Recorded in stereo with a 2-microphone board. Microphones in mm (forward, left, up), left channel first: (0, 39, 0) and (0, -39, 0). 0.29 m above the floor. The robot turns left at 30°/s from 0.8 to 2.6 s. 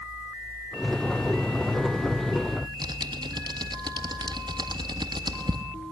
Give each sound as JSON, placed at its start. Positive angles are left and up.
{"t": 2.6, "sound": "typing on a keyboard", "side_deg": -75, "distance_m": 1.4}